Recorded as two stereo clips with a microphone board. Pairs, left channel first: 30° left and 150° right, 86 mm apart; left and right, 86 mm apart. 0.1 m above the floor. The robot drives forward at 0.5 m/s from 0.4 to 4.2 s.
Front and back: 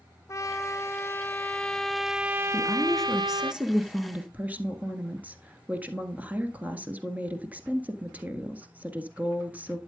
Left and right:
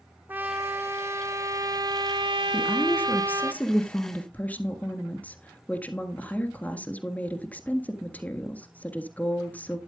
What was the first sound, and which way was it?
A trumpet, 25° right.